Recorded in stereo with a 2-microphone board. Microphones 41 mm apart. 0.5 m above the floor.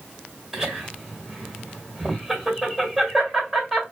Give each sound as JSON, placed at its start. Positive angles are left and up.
{"t": 0.5, "sound": "laughter", "side_deg": -5, "distance_m": 1.7}